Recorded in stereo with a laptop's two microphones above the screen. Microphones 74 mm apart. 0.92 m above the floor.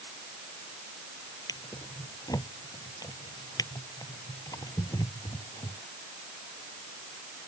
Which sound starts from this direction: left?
A drawer, at 1.5 s.